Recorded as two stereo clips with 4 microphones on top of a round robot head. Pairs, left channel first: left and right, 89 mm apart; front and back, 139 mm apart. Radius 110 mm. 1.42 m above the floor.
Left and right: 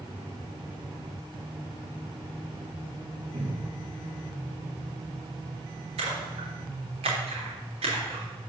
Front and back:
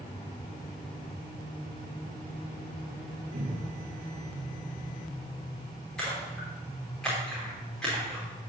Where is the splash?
85° right, 3 m.